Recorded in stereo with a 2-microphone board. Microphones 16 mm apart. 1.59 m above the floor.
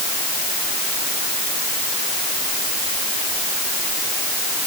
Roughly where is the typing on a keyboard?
I don't hear typing on a keyboard.